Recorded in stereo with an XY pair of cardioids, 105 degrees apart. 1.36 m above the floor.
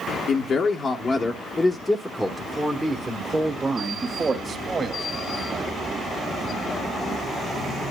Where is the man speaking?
55° left, 1.2 m; by 5.1 s 40° right, 2 m.